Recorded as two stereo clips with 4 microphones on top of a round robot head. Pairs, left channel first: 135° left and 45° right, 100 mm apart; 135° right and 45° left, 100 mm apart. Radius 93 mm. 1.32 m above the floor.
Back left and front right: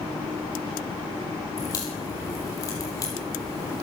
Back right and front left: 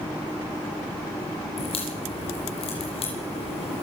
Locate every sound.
1.6 s a crack: 165° right, 7 m